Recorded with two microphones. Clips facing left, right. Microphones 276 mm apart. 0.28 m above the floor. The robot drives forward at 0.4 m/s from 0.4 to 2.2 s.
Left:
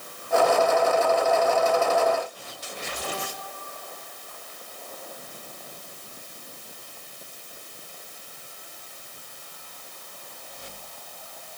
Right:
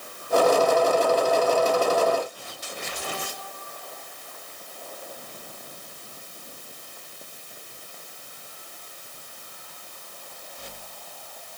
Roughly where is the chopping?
No chopping in this recording.